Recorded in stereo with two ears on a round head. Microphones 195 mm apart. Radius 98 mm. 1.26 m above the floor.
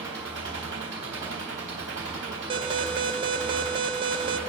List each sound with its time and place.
0.0 s an engine running: 60° right (ahead or behind), 3.5 m
2.5 s an alarm: 25° right (ahead or behind), 0.5 m